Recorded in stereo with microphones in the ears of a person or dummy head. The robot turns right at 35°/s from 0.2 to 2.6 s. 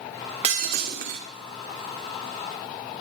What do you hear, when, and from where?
0.4 s breaking glass: 40° right (ahead or behind), 2 m; by 1.2 s 65° right (ahead or behind), 2 m